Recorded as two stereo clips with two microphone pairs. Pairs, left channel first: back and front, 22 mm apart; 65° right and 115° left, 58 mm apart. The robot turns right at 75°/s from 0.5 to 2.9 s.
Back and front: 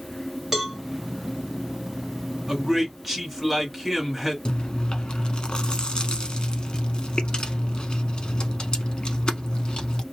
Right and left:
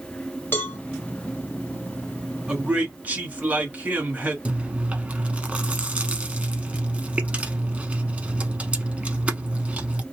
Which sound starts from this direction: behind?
Chewing, at 4.5 s.